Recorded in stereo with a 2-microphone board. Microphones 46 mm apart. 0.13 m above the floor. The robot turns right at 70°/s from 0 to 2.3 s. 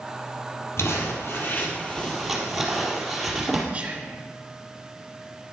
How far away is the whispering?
About 2.0 m.